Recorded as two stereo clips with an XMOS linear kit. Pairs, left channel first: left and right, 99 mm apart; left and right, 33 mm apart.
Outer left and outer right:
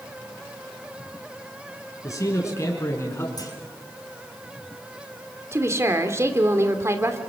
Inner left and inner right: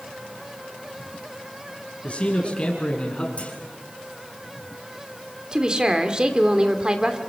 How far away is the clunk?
About 4 m.